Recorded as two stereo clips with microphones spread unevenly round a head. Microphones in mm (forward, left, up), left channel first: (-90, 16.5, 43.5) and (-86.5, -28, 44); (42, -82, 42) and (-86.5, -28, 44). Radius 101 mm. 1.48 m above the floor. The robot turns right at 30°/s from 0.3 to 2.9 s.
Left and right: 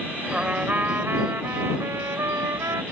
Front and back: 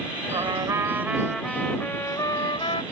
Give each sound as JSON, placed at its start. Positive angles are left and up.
{"t": 0.3, "sound": "a trumpet", "azimuth_deg": -145}